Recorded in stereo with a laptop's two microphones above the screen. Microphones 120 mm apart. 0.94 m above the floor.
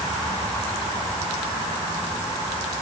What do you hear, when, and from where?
Only background noise.